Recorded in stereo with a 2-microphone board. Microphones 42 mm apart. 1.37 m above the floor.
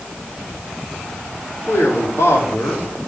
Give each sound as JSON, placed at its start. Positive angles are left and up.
{"t": 1.7, "sound": "a man speaking", "side_deg": 85, "distance_m": 4.0}